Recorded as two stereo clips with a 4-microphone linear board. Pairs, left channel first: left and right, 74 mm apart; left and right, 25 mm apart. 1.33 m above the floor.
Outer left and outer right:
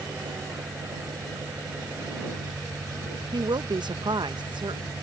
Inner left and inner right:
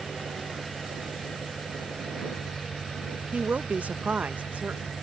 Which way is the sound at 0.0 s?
40° right (ahead or behind).